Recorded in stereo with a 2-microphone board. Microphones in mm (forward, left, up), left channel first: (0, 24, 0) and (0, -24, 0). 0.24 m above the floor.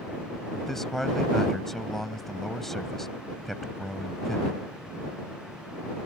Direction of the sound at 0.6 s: 5° left (ahead or behind).